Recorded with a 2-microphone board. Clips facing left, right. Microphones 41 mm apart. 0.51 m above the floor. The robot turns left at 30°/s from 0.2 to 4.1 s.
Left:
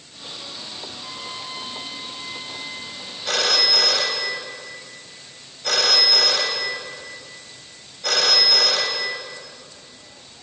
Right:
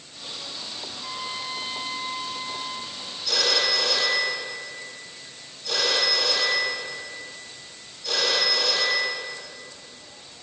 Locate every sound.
0.9 s a trumpet: 5° right, 0.7 m; by 3.0 s 65° right, 0.7 m
3.2 s a phone ringing: 55° left (ahead or behind), 1.3 m; by 9.2 s 75° left (ahead or behind), 1.3 m